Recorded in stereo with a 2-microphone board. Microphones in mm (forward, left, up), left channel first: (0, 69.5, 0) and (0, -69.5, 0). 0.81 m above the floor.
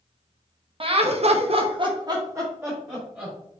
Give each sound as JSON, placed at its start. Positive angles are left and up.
{"t": 0.8, "sound": "laughter", "side_deg": -45, "distance_m": 0.7}